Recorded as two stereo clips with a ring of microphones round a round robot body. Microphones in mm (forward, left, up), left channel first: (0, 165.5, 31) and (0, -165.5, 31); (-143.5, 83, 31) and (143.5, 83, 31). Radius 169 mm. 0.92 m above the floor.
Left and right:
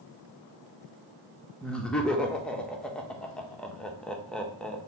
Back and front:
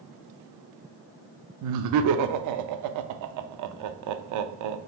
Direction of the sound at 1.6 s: 5° left.